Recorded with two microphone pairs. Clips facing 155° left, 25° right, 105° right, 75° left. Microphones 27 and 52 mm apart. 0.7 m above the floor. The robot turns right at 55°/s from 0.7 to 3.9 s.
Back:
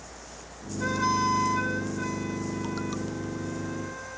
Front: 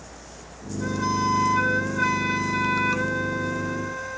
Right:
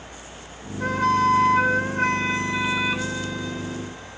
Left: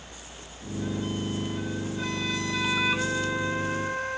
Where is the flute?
135° right; by 4.2 s 35° left.